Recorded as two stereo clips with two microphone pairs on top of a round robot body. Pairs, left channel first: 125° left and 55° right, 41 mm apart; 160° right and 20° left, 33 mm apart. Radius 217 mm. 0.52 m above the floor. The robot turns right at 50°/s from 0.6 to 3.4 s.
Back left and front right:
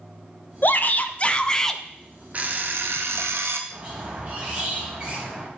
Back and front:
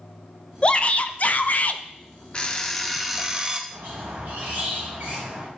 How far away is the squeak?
About 2.5 m.